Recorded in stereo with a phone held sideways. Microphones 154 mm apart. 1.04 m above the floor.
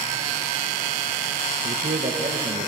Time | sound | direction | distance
1.6 | a man speaking | 55° right (ahead or behind) | 1.0 m